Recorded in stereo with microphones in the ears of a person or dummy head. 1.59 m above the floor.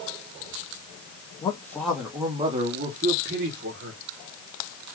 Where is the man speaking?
20° left (ahead or behind), 0.8 m; by 4.0 s 50° right (ahead or behind), 1.6 m.